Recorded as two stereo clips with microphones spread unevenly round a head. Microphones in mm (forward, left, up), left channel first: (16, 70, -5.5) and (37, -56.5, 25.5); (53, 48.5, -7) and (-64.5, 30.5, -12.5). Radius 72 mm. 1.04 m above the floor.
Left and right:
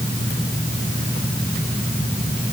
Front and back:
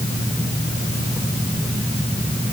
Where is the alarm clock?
I don't hear an alarm clock.